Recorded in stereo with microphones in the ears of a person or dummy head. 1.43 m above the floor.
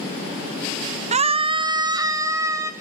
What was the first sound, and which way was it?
A scream, 40° right (ahead or behind).